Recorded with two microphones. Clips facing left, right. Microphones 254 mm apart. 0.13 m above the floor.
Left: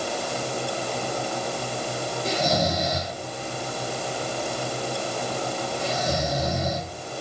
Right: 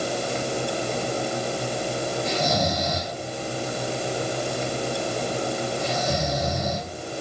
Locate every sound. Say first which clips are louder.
2.2 s snoring: left 3 dB; 35° left (ahead or behind), 3 m